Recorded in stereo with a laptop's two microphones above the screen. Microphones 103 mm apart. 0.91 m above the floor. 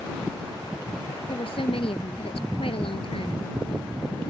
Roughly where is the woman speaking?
Left.